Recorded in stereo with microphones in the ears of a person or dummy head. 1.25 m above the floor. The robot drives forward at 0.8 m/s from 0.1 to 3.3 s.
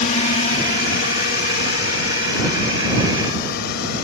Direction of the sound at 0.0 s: 40° left (ahead or behind).